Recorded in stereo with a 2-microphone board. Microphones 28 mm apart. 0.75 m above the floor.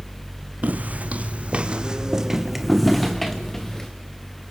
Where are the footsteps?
70° right (ahead or behind), 2 m; by 3.9 s 15° left (ahead or behind), 3.5 m.